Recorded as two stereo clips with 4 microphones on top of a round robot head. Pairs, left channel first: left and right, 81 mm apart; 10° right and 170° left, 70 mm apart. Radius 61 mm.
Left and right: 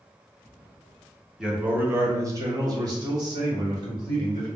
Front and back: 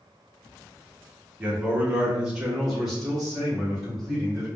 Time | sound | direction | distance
1.4 | a man speaking | 155° right | 0.8 m